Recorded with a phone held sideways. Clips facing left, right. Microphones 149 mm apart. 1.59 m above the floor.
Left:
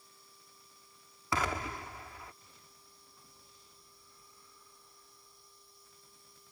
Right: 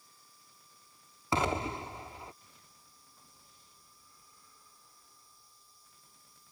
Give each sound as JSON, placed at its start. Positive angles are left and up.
{"t": 0.0, "sound": "a machine running", "side_deg": 65}
{"t": 1.3, "sound": "an explosion", "side_deg": -25}